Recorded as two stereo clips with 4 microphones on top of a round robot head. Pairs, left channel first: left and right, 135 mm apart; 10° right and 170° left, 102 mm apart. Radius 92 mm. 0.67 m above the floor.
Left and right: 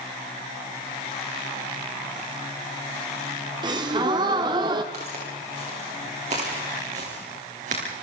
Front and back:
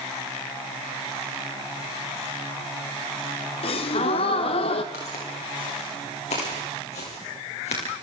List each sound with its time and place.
3.6 s a gasp: 30° right, 1.3 m
4.9 s footsteps: 40° right, 7.5 m; by 8.0 s 45° right, 6 m